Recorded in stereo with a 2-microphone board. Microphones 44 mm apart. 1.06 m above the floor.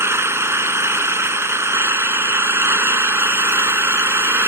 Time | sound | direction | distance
0.0 | an engine running | 80° right | ?